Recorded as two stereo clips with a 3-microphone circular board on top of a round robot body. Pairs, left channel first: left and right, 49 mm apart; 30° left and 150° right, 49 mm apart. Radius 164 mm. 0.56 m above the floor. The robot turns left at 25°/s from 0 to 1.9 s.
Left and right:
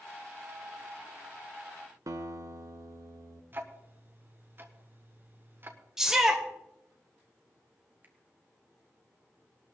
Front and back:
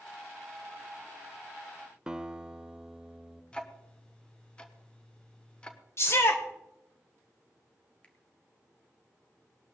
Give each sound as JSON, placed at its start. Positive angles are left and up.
{"t": 2.1, "sound": "a guitar", "azimuth_deg": -75, "distance_m": 0.7}
{"t": 3.5, "sound": "ticking", "azimuth_deg": -45, "distance_m": 1.3}
{"t": 6.0, "sound": "a shout", "azimuth_deg": -10, "distance_m": 2.5}
{"t": 8.0, "sound": "a finger snap", "azimuth_deg": -35, "distance_m": 1.9}